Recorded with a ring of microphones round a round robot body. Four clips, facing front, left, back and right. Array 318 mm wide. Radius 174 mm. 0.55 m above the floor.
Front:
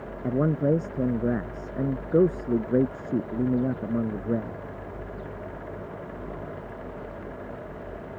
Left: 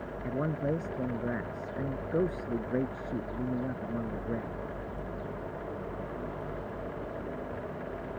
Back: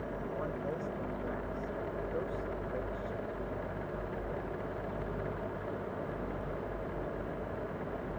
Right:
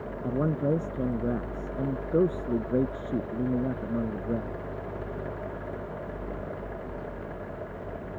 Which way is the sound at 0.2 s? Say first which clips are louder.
Right 5 dB, front 16 dB; 20° right.